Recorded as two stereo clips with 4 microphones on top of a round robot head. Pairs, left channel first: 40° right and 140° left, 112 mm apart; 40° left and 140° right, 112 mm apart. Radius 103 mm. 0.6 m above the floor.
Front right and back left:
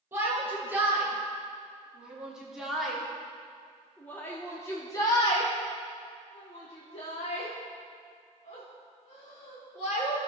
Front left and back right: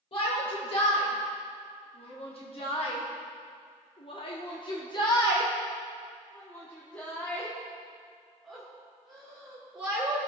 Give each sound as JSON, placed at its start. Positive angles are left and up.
{"t": 0.1, "sound": "a shout", "azimuth_deg": 75, "distance_m": 3.0}